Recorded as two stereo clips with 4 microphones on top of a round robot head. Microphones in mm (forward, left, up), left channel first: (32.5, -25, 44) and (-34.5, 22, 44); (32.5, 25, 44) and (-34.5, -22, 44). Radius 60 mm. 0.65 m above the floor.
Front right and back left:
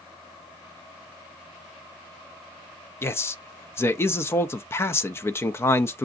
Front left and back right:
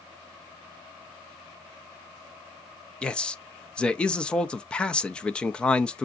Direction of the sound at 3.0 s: 30° right.